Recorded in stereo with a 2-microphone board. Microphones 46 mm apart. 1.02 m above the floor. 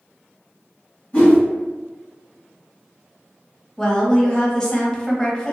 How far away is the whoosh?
About 1.4 m.